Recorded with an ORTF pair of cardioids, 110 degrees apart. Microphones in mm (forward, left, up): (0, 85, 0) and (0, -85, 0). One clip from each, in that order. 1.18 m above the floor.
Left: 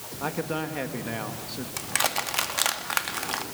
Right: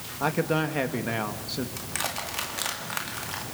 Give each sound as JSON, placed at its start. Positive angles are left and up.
{"t": 0.2, "sound": "a man speaking", "azimuth_deg": -25, "distance_m": 2.0}
{"t": 1.8, "sound": "crushing", "azimuth_deg": 35, "distance_m": 1.9}